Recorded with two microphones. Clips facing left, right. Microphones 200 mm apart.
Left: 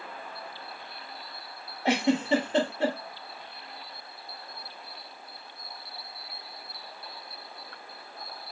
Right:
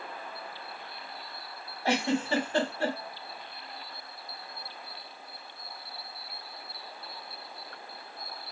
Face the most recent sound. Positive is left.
turn(degrees=20)  # may be behind; listen again after turning